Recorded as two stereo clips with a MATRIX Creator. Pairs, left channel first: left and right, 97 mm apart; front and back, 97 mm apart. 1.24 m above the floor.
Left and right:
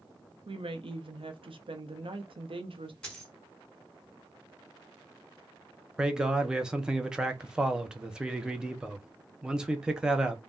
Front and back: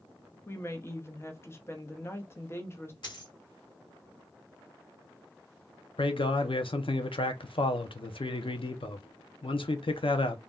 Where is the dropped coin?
10° left, 1.6 m.